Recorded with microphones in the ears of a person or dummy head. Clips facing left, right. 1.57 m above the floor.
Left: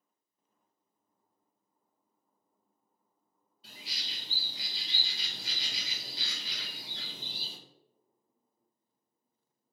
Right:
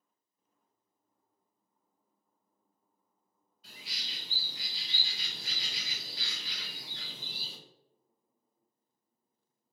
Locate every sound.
3.6 s a bird: 35° left (ahead or behind), 1.1 m